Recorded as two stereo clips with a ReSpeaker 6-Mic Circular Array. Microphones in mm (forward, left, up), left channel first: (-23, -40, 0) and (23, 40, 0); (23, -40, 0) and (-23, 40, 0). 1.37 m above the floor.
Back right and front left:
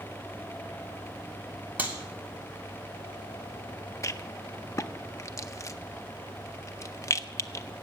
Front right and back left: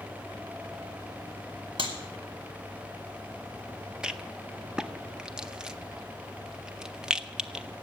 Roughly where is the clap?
Behind left.